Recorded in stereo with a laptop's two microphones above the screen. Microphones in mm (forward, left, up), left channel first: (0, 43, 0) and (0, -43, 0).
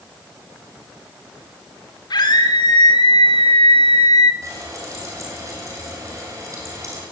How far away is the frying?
About 6 m.